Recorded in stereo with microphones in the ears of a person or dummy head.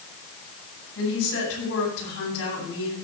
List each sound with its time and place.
0.9 s a woman speaking: 80° left, 8.5 m